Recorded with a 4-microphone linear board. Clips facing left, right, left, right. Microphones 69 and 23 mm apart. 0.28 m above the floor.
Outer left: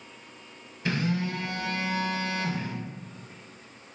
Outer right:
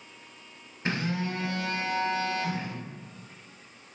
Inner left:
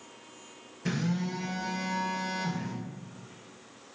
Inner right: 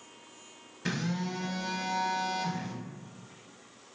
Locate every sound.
0.8 s a phone buzzing: 30° right (ahead or behind), 0.6 m